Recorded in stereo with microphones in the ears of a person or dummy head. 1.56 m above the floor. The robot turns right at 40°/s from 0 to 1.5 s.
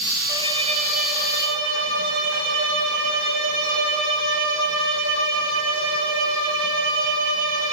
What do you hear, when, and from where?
0.3 s a violin: 165° right, 5 m; by 7.7 s 115° right, 5 m